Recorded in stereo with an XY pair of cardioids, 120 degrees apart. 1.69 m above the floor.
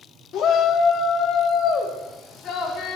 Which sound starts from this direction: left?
A shout, at 0.3 s.